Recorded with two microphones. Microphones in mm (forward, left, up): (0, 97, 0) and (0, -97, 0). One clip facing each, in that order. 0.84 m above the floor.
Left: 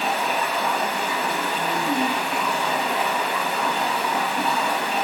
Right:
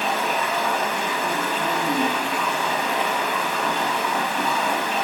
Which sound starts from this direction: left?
Running water, at 0.0 s.